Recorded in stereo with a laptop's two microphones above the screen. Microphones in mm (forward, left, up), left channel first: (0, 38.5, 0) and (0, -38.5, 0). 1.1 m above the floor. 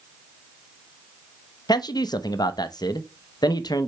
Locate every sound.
1.7 s a man speaking: 55° left (ahead or behind), 0.9 m